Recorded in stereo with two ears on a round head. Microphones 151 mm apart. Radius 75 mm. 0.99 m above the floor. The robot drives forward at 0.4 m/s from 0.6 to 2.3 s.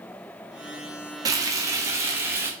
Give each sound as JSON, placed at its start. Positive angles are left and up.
{"t": 1.2, "sound": "frying", "side_deg": -20, "distance_m": 0.7}